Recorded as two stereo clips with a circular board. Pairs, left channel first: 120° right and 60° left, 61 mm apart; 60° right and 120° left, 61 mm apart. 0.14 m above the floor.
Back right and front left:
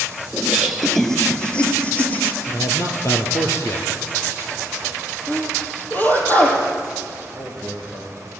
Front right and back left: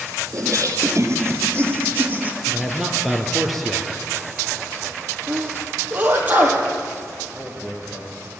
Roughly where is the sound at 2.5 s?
Behind right.